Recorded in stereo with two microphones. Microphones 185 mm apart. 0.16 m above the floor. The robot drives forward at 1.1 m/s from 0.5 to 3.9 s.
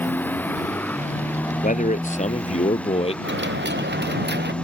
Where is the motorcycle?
10° left (ahead or behind); by 4.6 s 5° left (ahead or behind).